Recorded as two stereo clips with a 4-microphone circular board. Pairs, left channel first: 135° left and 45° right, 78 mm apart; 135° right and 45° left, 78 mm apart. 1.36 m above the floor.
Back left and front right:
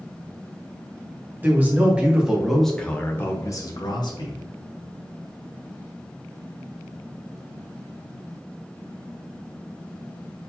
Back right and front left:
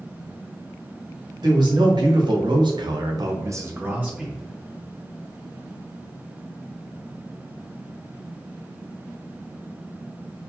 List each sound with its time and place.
1.4 s a man speaking: 20° left, 1.9 m; by 4.4 s 125° left, 1.3 m